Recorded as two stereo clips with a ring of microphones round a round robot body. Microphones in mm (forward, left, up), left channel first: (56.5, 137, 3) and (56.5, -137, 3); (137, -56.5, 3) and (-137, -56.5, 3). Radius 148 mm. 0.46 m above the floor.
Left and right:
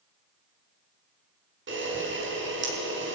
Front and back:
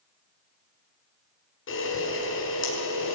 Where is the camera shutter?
45° right, 6 m.